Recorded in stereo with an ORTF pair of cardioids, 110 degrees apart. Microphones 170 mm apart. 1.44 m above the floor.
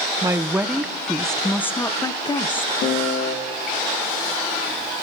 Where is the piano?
70° left, 2 m.